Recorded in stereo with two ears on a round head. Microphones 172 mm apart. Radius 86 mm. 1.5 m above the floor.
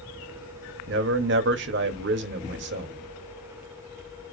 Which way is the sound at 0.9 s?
65° right (ahead or behind).